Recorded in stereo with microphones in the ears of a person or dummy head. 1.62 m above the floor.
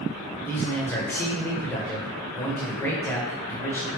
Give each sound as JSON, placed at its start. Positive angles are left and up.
{"t": 0.5, "sound": "a man speaking", "side_deg": 10, "distance_m": 0.8}